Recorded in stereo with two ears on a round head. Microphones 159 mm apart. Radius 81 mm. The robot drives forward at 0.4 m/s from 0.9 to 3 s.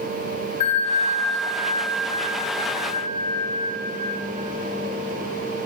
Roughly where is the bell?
Left.